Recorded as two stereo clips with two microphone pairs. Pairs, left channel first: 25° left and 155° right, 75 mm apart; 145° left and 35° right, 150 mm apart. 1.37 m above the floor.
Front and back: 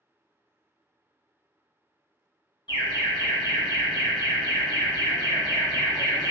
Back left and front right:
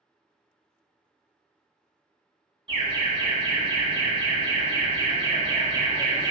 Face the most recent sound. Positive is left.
turn(degrees=20)